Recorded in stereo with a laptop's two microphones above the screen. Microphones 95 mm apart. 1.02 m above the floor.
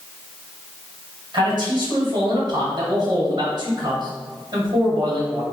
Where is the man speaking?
50° right (ahead or behind), 1.9 m.